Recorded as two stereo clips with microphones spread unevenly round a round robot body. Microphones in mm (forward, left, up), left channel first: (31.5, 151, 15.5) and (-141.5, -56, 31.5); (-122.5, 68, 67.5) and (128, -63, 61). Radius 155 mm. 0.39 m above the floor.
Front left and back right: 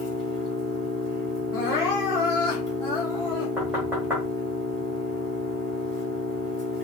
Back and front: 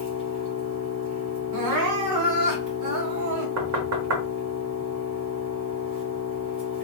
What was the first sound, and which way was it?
An engine running, 5° left.